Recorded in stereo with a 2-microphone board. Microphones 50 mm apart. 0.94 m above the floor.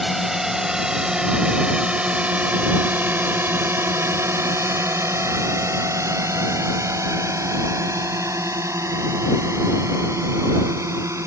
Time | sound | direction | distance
0.0 | a drone | 5° right (ahead or behind) | ?